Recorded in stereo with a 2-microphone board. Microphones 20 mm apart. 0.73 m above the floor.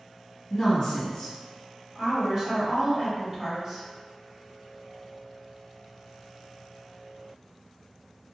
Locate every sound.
0.5 s a woman speaking: 25° left (ahead or behind), 1.4 m
1.9 s a woman speaking: 30° right (ahead or behind), 1.5 m